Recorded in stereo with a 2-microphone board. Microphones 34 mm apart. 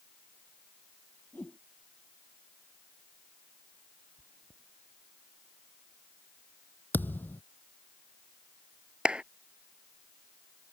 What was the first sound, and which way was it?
A whoosh, 55° left (ahead or behind).